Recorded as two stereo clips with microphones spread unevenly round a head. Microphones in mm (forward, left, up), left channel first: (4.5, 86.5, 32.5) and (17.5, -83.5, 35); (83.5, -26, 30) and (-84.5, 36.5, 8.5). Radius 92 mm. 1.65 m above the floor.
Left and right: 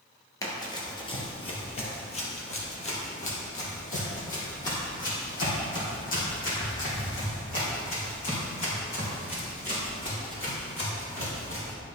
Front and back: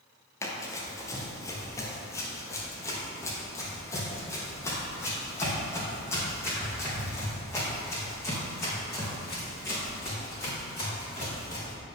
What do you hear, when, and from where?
0.4 s running footsteps: 35° left, 2.0 m; by 11.7 s 55° left, 9 m